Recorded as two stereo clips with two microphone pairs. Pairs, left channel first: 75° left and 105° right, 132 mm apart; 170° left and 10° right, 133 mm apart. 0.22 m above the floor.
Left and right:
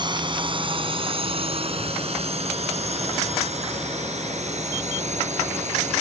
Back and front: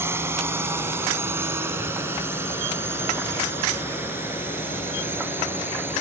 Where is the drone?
70° right; by 6.0 s 80° right.